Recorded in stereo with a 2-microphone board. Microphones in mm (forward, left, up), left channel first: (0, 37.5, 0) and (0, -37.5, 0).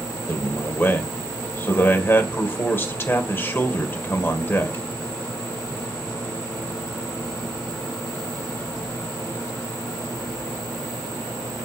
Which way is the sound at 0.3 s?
30° left (ahead or behind).